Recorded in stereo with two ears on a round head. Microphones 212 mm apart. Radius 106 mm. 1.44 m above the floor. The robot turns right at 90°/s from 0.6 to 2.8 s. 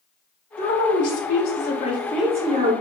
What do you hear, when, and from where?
0.6 s a woman speaking: 35° left, 1.1 m; by 2.7 s 135° right, 1.1 m